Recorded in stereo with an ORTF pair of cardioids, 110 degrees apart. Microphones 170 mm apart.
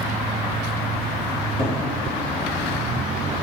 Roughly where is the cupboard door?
Ahead left.